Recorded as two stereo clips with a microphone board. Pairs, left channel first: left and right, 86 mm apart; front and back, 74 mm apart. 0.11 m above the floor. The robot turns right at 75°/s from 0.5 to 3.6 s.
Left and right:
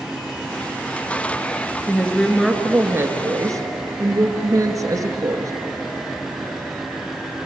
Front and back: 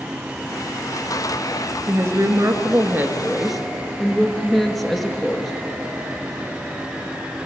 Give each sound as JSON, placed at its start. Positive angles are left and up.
{"t": 1.9, "sound": "a woman speaking", "azimuth_deg": 140, "distance_m": 2.0}